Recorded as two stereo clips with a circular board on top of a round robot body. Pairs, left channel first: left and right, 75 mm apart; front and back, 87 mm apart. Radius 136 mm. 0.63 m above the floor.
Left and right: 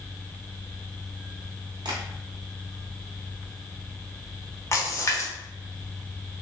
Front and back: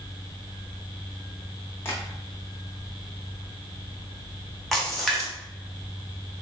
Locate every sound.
1.9 s tapping: 65° right, 0.5 m
4.7 s a splash: 90° left, 1.1 m